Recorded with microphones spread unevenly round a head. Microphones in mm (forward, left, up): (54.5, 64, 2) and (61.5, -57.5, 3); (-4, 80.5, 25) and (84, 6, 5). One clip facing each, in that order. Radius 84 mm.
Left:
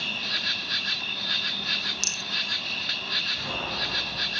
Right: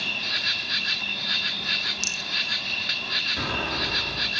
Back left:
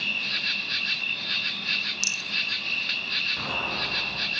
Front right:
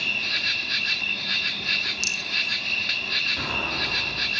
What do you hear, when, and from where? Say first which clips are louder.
0.0 s an insect: right 1 dB, front right 3 dB; 5° left, 1.0 m
2.0 s a rattle: right 1 dB, front right 3 dB; 60° left, 1.3 m
3.4 s an explosion: right 5 dB, front right 1 dB; 120° right, 9.5 m